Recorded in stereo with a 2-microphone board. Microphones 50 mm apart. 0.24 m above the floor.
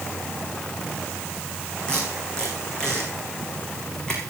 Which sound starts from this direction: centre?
Tape being pulled, at 1.9 s.